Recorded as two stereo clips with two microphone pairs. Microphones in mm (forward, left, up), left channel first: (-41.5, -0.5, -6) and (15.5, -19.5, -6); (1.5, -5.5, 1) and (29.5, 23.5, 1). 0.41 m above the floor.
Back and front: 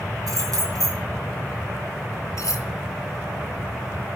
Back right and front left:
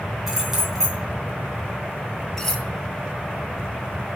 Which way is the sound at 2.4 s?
150° left.